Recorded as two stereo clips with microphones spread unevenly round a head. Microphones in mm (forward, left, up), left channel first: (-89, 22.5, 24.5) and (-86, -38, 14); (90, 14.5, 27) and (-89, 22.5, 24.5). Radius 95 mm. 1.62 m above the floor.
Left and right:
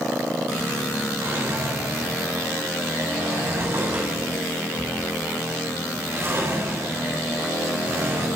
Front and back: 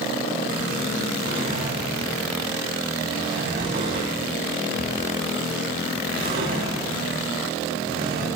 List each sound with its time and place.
1.2 s a drawer: 135° right, 9 m